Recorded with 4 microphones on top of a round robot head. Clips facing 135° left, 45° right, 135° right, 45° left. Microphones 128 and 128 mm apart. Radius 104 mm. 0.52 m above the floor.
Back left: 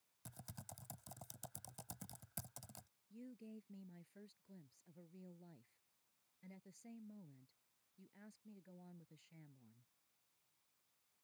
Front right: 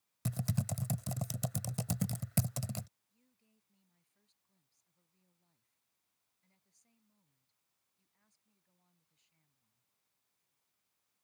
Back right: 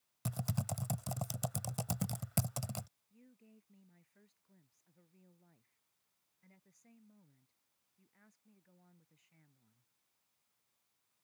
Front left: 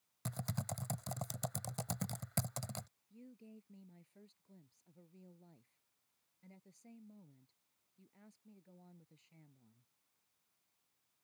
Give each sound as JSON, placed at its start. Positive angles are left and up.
{"t": 0.2, "sound": "typing on a keyboard", "azimuth_deg": -55}
{"t": 3.1, "sound": "a woman speaking", "azimuth_deg": 110}